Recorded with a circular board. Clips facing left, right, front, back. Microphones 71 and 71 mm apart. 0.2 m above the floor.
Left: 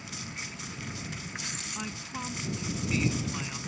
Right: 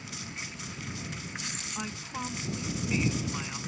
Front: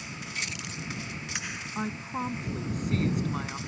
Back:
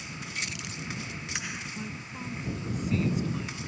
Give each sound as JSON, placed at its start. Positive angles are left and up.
{"t": 1.8, "sound": "a woman speaking", "azimuth_deg": -10}